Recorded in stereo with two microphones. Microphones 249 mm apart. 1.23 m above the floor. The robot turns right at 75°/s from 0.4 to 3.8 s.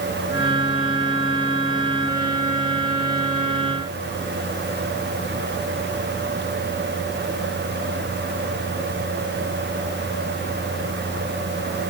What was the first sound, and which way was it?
Only background noise.